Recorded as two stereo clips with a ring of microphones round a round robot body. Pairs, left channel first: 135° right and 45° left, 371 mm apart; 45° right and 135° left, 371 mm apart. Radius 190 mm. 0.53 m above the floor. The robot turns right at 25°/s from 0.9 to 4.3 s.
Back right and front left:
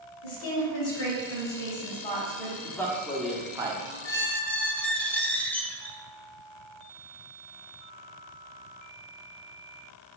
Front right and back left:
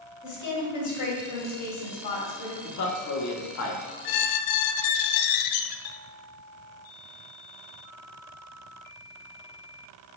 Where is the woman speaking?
85° right, 2.5 m; by 2.5 s 45° right, 2.5 m.